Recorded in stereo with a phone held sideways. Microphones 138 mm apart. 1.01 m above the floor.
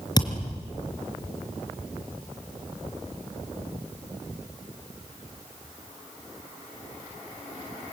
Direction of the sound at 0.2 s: 30° left (ahead or behind).